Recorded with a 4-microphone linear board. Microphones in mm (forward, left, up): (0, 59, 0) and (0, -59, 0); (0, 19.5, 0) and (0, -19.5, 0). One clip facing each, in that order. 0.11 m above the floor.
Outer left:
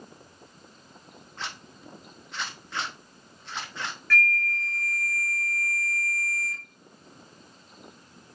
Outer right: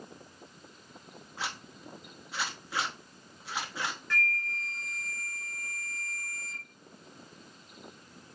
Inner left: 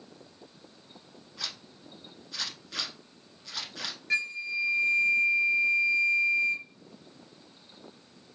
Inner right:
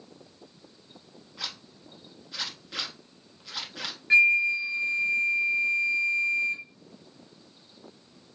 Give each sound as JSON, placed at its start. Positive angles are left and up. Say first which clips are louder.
{"t": 1.4, "sound": "a zipper", "louder": "outer right 1 dB, inner right 1 dB", "side_deg": -10, "distance_m": 0.9}
{"t": 4.1, "sound": "a flute", "louder": "outer left 6 dB, inner right 11 dB", "side_deg": -20, "distance_m": 0.9}